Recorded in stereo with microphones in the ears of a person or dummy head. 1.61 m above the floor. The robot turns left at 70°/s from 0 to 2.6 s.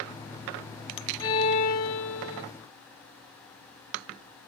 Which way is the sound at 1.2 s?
160° left.